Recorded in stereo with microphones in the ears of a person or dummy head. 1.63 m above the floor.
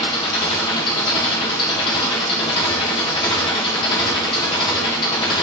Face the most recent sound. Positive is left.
turn(degrees=25)  # may be behind; listen again after turning